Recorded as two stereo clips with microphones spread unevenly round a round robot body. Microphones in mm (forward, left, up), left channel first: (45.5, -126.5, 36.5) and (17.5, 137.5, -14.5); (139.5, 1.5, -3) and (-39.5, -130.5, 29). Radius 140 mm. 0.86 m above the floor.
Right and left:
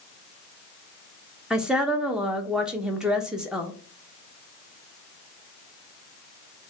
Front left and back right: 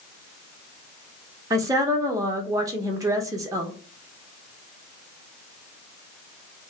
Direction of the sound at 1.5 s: 145° left.